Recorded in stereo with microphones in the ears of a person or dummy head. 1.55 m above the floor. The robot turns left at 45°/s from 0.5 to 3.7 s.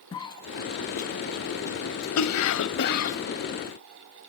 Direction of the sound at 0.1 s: 20° left (ahead or behind).